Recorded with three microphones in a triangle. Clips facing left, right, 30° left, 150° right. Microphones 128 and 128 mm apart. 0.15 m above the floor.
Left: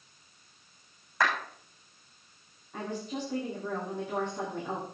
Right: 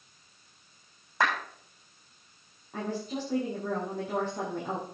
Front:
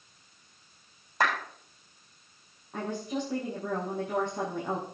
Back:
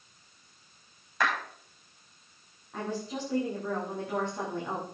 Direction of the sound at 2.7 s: 45° right.